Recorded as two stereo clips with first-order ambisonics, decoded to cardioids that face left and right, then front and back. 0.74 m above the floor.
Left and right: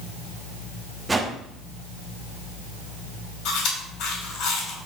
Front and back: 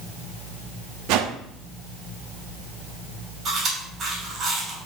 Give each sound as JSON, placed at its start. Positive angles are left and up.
{"t": 1.1, "sound": "a whoosh", "azimuth_deg": -170, "distance_m": 0.7}
{"t": 3.5, "sound": "chewing", "azimuth_deg": 115, "distance_m": 2.5}